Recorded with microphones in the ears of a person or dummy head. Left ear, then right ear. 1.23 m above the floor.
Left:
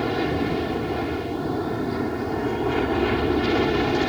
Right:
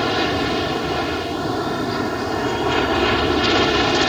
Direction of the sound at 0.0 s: 40° right (ahead or behind).